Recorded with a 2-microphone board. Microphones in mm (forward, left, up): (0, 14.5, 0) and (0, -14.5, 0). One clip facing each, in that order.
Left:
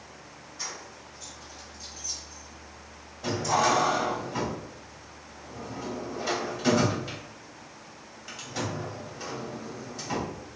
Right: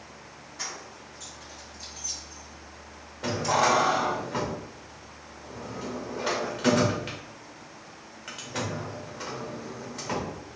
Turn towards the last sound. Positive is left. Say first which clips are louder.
# right 1 dB
turn(degrees=-70)  # may be behind; listen again after turning